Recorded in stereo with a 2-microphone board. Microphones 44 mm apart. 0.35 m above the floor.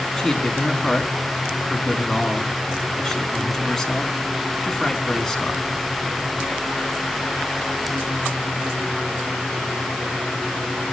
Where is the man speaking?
5° left (ahead or behind), 4 m.